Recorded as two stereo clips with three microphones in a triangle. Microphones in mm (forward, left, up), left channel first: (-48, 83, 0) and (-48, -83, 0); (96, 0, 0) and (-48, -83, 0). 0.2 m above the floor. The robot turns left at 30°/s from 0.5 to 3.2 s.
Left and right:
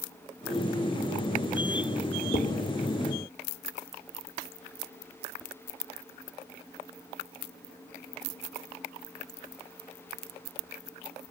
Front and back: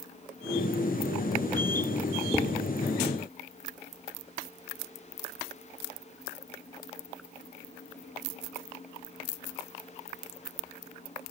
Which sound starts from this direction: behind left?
Dishes clattering, at 2.3 s.